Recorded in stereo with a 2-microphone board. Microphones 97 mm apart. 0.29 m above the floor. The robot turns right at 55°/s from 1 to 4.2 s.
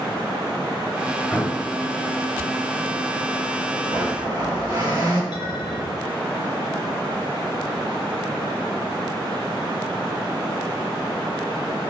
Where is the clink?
50° left (ahead or behind), 1.7 m.